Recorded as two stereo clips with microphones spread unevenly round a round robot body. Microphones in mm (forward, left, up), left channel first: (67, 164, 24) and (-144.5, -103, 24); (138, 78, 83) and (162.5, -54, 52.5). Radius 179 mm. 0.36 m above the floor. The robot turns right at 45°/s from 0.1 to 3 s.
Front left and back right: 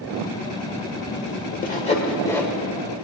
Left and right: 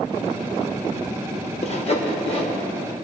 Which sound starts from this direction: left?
Sawing, at 1.6 s.